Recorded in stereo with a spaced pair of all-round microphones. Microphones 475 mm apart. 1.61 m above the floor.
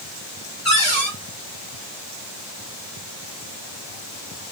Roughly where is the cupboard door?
Right.